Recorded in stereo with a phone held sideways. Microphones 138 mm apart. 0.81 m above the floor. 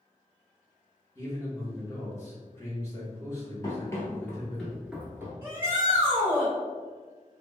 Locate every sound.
1.1 s a man speaking: 20° left (ahead or behind), 1.2 m
3.6 s running footsteps: 25° left (ahead or behind), 1.0 m; by 5.3 s 20° right (ahead or behind), 0.8 m
5.4 s a shout: 15° right (ahead or behind), 1.5 m